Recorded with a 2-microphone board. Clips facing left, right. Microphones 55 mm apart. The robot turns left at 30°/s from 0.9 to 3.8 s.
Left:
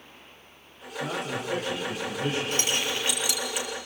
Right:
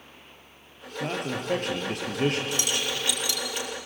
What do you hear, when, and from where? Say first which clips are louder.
1.0 s a man speaking: right 1 dB; 55° right, 5 m; by 2.4 s 95° right, 5 m
2.5 s keys jangling: left 1 dB; 40° left (ahead or behind), 3.5 m; by 3.7 s 5° left (ahead or behind), 3.5 m